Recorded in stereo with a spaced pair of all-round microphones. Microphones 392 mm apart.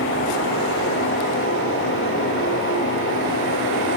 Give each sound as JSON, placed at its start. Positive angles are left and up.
{"t": 0.0, "sound": "a fan", "side_deg": 30, "distance_m": 9.0}